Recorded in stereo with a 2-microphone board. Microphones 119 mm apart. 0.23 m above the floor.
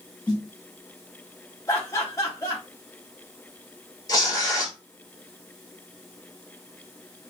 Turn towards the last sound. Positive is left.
turn(degrees=35)  # may be behind; listen again after turning